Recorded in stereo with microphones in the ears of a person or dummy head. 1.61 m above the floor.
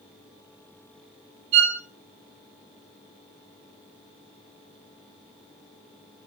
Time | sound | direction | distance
1.5 | a violin | 35° right (ahead or behind) | 1.1 m